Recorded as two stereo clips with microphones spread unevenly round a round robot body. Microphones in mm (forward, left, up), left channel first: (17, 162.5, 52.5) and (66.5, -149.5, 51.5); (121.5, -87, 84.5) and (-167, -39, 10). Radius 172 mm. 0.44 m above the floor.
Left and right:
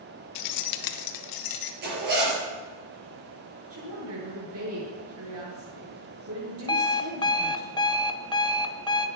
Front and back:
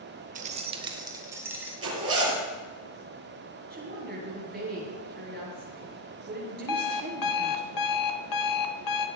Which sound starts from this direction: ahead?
An alarm clock, at 6.7 s.